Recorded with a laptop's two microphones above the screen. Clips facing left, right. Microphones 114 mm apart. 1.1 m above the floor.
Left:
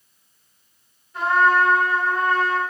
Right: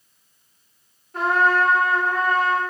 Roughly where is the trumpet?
Right.